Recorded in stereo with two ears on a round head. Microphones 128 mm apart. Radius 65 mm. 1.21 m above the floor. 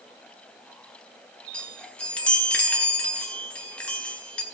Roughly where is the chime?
Centre.